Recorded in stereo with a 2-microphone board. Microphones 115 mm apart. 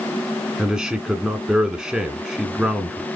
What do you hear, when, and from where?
0.6 s a man speaking: 5° right (ahead or behind), 1.4 m